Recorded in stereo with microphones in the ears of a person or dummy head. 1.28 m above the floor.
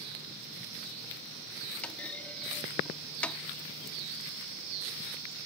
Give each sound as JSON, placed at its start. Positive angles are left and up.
{"t": 1.8, "sound": "a clunk", "side_deg": 5}